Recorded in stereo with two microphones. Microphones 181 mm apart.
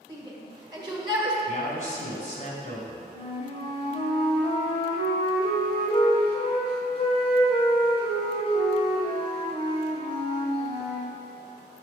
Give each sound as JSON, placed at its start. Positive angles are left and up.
{"t": 0.1, "sound": "a shout", "side_deg": -20, "distance_m": 2.0}
{"t": 1.5, "sound": "a man speaking", "side_deg": 45, "distance_m": 2.5}
{"t": 3.1, "sound": "a flute", "side_deg": 35, "distance_m": 1.5}